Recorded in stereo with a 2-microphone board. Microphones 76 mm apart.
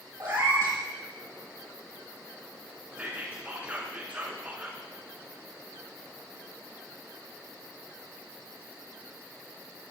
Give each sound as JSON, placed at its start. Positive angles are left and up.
{"t": 0.2, "sound": "a cat meowing", "side_deg": -50, "distance_m": 2.0}
{"t": 3.0, "sound": "whispering", "side_deg": -20, "distance_m": 1.0}